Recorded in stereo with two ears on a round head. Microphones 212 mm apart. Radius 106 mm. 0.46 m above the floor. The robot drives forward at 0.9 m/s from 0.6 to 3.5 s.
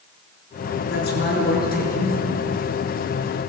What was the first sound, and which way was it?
A man speaking, 50° left (ahead or behind).